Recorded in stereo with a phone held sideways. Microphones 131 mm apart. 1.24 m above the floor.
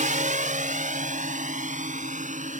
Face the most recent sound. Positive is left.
turn(degrees=-60)  # may be behind; listen again after turning